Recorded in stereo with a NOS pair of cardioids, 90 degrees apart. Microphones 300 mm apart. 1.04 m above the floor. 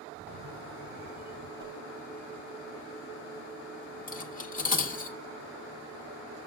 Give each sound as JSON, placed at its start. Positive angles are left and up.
{"t": 0.1, "sound": "a camera shutter", "azimuth_deg": -35, "distance_m": 1.4}
{"t": 1.6, "sound": "a whoosh", "azimuth_deg": -70, "distance_m": 2.5}
{"t": 4.1, "sound": "cutlery clinking", "azimuth_deg": 25, "distance_m": 1.8}